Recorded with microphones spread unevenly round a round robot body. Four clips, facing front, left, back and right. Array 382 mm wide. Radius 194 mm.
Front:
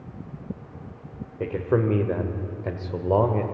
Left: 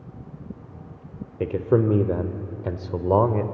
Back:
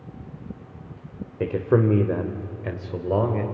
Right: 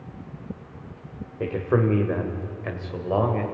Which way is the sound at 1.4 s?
145° left.